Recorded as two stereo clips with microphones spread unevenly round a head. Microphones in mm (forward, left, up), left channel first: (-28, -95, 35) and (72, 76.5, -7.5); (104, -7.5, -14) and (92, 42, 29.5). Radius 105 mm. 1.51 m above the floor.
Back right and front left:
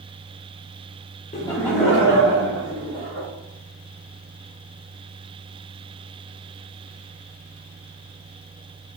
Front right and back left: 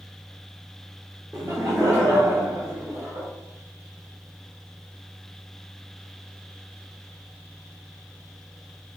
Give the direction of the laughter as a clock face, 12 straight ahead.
6 o'clock.